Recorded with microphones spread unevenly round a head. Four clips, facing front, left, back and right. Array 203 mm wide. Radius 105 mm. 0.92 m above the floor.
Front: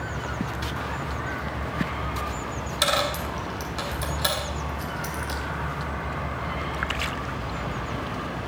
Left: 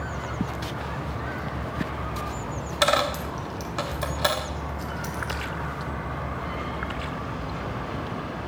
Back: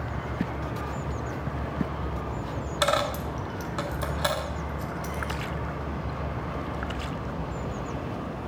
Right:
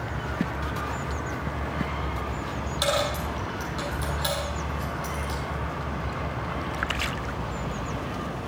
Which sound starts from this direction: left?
A dropped coin, at 2.8 s.